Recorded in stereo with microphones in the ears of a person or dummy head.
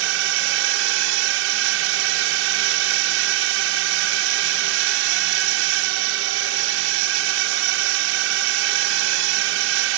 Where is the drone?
70° right (ahead or behind).